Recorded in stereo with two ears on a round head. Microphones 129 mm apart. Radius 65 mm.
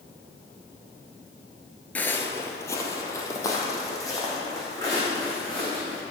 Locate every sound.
1.9 s footsteps: 10° left (ahead or behind), 0.9 m; by 6.0 s 25° left (ahead or behind), 5 m